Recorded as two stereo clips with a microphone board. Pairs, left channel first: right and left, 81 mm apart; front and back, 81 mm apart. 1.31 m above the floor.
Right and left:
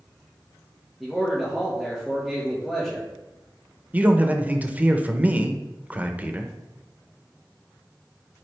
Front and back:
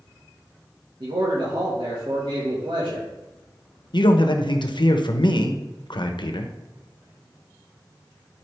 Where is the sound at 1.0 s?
175° left, 1.8 m.